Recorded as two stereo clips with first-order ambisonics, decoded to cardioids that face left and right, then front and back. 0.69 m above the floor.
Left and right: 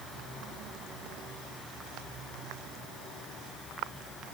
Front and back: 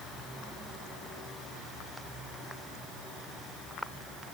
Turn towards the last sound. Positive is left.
No sound to turn to.